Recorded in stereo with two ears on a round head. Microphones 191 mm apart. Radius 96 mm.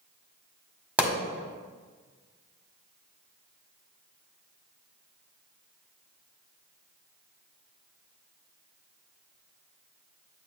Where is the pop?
5° right (ahead or behind), 1.7 m.